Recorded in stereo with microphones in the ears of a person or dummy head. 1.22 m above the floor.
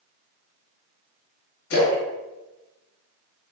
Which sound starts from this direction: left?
A splash, at 1.7 s.